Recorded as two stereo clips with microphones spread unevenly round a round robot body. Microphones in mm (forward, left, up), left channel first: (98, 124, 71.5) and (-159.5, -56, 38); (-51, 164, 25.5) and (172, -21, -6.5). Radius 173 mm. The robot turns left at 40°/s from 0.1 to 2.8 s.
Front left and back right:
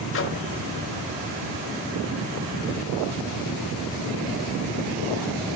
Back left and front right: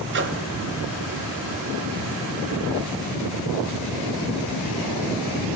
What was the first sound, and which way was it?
A microwave, 10° right.